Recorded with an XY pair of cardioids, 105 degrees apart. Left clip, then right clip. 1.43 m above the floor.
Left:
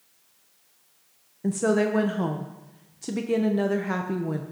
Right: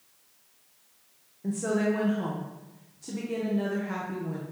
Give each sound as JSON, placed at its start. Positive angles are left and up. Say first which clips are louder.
{"t": 1.4, "sound": "a woman speaking", "louder": "left 5 dB", "azimuth_deg": 55, "distance_m": 0.8}